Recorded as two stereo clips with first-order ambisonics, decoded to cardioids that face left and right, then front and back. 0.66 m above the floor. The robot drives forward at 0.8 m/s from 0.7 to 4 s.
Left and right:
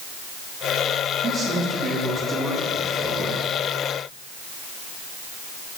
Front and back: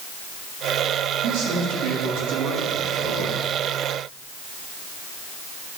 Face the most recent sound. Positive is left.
turn(degrees=-170)